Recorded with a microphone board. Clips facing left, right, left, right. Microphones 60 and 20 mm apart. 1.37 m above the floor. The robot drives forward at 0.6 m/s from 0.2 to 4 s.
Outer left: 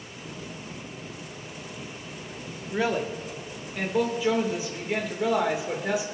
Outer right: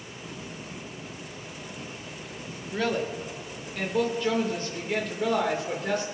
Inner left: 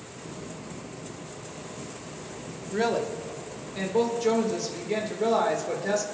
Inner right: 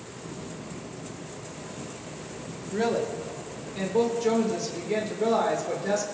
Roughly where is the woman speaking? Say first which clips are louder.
Outer left 1 dB, even; centre.